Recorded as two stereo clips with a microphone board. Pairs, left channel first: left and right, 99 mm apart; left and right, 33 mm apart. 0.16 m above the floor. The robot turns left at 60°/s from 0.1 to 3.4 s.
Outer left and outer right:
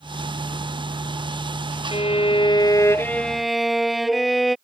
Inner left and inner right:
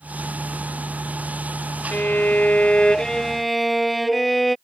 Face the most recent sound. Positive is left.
turn(degrees=0)